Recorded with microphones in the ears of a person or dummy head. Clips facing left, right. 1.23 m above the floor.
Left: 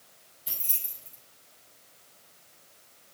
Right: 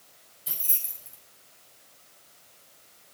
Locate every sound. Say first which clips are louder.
0.5 s keys jangling: right 1 dB; 5° right (ahead or behind), 4 m